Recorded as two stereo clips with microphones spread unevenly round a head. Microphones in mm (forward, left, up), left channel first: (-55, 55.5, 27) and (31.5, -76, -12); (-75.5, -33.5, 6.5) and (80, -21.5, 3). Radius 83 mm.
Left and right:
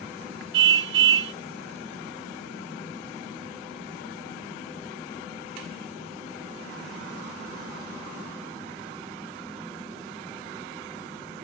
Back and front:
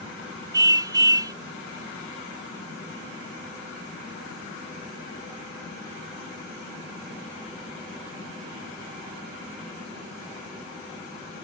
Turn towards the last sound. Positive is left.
turn(degrees=-65)